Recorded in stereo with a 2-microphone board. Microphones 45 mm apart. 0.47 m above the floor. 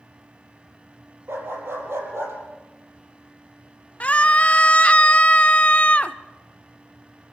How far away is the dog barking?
About 5.5 m.